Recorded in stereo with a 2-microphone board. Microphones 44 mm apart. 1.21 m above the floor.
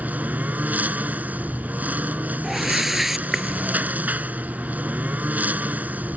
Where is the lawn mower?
40° right (ahead or behind).